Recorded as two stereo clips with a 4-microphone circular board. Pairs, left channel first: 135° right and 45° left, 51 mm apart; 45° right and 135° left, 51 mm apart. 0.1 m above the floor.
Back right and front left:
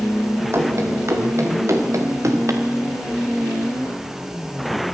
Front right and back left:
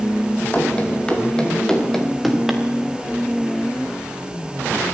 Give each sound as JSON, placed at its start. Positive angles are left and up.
{"t": 0.5, "sound": "running footsteps", "azimuth_deg": 20, "distance_m": 5.0}